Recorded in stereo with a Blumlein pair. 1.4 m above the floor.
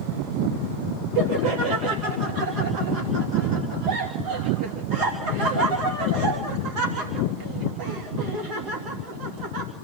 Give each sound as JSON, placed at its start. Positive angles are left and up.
{"t": 1.1, "sound": "laughter", "azimuth_deg": -40, "distance_m": 3.0}